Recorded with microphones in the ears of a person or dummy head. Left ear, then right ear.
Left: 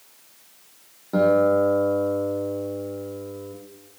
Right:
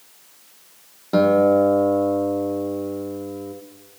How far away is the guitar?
About 1.1 m.